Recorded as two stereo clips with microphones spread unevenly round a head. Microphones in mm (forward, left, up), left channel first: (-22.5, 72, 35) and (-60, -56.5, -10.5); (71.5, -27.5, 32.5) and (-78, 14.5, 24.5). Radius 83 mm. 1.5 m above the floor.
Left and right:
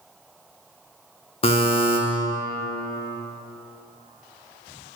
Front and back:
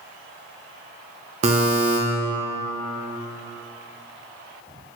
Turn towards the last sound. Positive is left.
turn(degrees=110)